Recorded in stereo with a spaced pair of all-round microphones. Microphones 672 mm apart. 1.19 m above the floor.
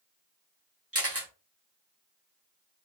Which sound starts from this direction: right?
A camera shutter, at 0.9 s.